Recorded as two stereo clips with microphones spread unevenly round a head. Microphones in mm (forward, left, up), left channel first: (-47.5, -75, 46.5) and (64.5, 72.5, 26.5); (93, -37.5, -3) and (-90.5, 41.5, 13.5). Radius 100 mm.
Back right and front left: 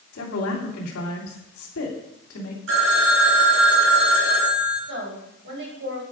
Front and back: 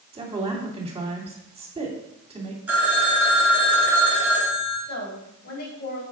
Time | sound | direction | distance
0.1 | a woman speaking | 140° right | 2.5 m
2.7 | a phone ringing | 75° left | 4 m
4.9 | a woman speaking | 20° left | 4.5 m